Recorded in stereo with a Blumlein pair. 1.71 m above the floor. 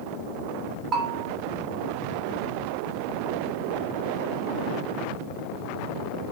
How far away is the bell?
About 2.5 m.